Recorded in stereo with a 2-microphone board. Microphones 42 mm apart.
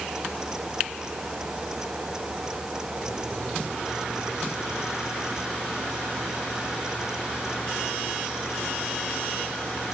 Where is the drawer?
No drawer in this recording.